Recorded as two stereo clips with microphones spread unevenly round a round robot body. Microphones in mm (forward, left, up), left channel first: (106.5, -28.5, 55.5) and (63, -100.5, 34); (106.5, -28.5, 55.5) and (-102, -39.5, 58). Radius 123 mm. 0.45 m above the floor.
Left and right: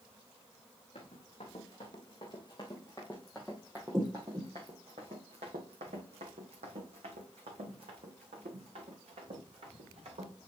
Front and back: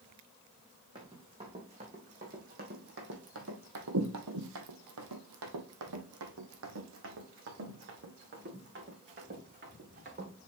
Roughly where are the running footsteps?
Left.